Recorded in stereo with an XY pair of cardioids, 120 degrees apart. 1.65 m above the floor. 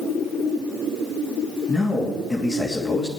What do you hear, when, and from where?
1.7 s a man speaking: 30° left, 2.5 m